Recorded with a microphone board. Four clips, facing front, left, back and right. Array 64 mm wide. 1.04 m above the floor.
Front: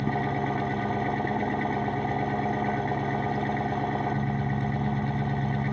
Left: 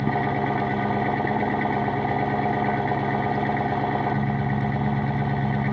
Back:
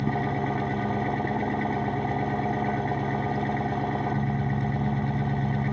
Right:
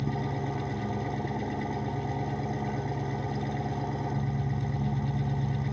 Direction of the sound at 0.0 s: 85° left.